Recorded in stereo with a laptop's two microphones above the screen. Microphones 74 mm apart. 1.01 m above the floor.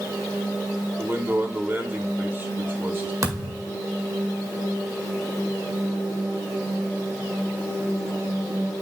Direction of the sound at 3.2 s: 50° right (ahead or behind).